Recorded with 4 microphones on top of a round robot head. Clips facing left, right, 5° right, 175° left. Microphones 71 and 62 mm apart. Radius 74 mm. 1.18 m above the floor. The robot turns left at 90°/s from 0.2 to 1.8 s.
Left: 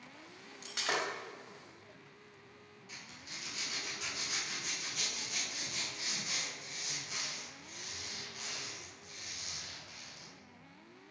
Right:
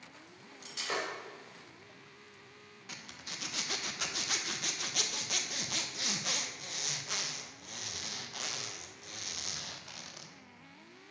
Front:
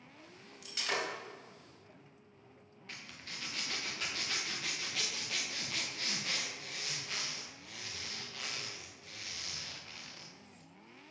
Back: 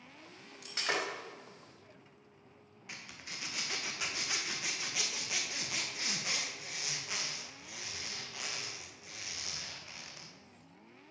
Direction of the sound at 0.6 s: 140° left.